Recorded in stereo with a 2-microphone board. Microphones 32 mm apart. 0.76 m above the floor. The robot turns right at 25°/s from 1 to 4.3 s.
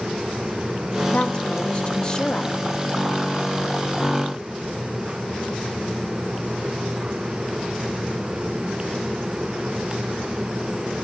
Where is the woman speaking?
110° left, 1.3 m; by 2.6 s 150° left, 1.3 m.